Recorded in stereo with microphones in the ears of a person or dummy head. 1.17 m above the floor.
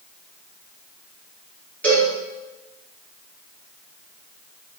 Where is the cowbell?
5° left (ahead or behind), 4.5 m.